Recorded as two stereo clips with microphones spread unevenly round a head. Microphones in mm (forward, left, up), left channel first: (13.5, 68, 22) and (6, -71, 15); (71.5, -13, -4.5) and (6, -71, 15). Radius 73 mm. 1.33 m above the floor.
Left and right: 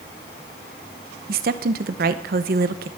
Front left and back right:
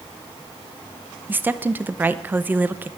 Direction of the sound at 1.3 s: 70° right.